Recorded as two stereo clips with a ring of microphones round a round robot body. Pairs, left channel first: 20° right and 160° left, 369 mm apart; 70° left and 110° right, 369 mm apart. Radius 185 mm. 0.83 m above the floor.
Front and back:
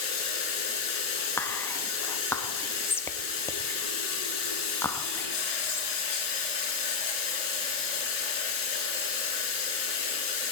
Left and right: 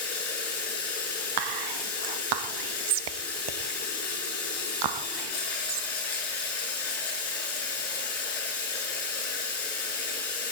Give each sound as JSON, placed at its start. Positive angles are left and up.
{"t": 0.0, "sound": "running water", "azimuth_deg": 15, "distance_m": 6.5}
{"t": 1.4, "sound": "whispering", "azimuth_deg": -105, "distance_m": 0.8}